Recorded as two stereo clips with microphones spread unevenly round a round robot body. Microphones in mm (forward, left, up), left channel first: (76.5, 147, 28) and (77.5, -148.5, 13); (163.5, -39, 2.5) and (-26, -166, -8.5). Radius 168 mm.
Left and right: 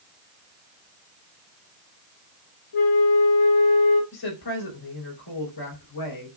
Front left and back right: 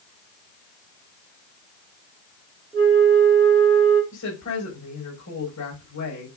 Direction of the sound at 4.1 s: 85° left.